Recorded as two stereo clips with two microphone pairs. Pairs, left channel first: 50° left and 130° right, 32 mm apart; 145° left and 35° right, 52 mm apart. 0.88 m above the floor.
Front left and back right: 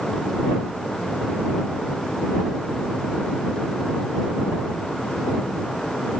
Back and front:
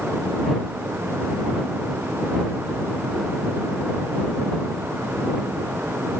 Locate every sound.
Only background noise.